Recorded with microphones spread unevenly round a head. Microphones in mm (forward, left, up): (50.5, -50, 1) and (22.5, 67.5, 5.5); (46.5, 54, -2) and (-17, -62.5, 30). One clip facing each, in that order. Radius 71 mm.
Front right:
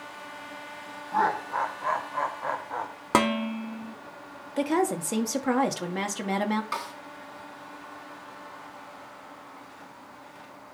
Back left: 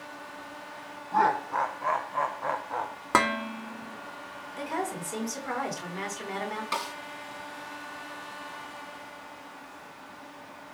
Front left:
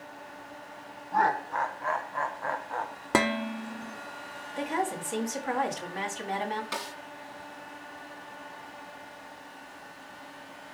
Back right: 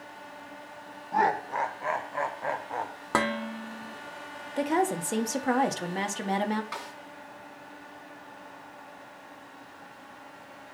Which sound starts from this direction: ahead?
Dishes clattering, at 3.1 s.